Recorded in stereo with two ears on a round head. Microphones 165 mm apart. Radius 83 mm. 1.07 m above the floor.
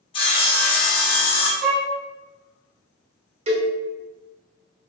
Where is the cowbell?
35° right (ahead or behind), 1.1 m.